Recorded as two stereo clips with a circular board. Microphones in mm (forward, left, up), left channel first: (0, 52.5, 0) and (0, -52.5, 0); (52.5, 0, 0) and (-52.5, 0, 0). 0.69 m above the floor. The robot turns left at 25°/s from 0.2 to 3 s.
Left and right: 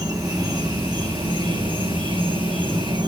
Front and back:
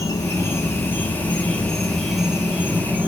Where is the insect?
45° right, 0.9 m; by 3.1 s 115° right, 0.9 m.